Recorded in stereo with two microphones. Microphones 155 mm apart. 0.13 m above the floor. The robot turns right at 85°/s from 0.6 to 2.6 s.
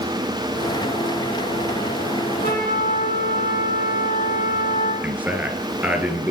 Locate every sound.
2.4 s a trumpet: 70° left (ahead or behind), 4 m; by 4.9 s 65° left (ahead or behind), 4 m
5.0 s a man speaking: 10° right (ahead or behind), 2.5 m